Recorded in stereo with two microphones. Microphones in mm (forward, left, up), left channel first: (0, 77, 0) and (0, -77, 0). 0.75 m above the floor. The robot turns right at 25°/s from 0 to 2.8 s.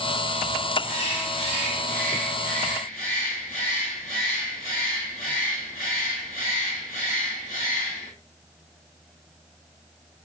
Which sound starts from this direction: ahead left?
A bird, at 0.8 s.